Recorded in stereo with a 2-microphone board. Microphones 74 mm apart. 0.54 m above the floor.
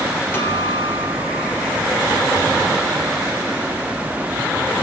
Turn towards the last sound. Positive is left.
turn(degrees=30)  # may be behind; listen again after turning